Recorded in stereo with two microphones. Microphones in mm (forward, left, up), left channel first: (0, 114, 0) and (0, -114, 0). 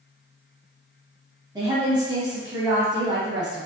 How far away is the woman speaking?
About 1.1 m.